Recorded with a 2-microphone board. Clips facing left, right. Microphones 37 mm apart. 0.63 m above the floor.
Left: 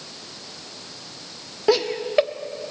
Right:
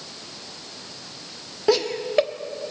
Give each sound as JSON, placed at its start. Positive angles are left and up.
{"t": 1.7, "sound": "laughter", "side_deg": 5, "distance_m": 0.9}